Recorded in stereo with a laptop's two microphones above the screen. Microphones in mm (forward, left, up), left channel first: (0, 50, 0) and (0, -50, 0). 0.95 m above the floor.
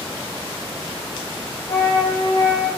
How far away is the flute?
About 2 m.